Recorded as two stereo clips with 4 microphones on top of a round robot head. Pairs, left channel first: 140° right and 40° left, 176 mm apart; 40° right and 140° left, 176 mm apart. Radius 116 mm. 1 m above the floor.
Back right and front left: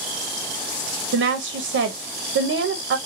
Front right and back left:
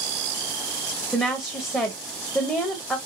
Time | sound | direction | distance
1.1 | a woman speaking | 40° left | 0.6 m